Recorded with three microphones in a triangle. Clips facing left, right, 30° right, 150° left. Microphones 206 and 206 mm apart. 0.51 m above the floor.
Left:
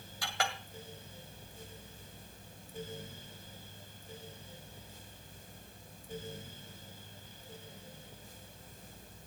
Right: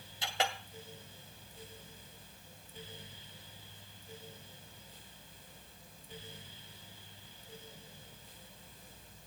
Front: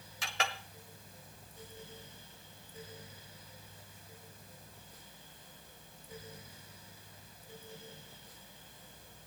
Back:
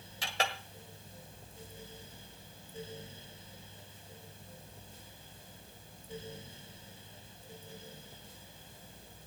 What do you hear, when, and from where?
0.2 s a clink: 155° right, 1.8 m